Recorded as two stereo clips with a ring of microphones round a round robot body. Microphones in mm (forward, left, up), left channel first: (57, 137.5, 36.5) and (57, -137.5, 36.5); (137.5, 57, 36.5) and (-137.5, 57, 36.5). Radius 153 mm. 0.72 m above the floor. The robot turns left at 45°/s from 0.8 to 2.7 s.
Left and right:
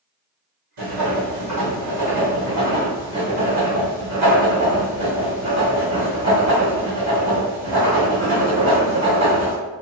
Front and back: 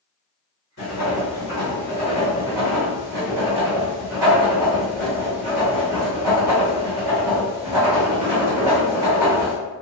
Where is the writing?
70° right, 1.6 m; by 9.6 s 155° right, 1.6 m.